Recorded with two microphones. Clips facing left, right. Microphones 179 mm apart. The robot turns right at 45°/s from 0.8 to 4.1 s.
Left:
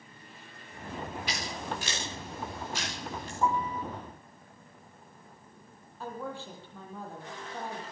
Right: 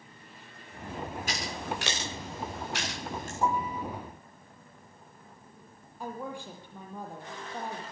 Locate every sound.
1.3 s scissors: 45° right (ahead or behind), 9 m
3.4 s a piano: 20° right (ahead or behind), 1.4 m; by 3.8 s 25° right (ahead or behind), 1.4 m
6.0 s a woman speaking: 15° right (ahead or behind), 7 m